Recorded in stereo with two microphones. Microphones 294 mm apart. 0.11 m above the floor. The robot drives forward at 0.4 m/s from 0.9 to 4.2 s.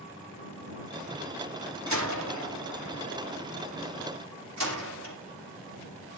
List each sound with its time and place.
1.9 s a door slam: 70° right (ahead or behind), 5 m; by 5.2 s 60° right (ahead or behind), 5.5 m